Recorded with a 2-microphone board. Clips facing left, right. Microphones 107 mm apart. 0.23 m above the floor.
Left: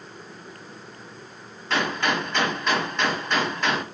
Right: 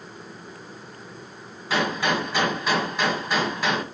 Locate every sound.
1.7 s a gunshot: 5° right (ahead or behind), 1.5 m